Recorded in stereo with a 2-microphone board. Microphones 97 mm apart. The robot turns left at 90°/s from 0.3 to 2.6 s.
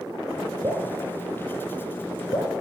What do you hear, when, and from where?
0.6 s dripping: 40° right (ahead or behind), 2 m; by 2.5 s 45° left (ahead or behind), 2 m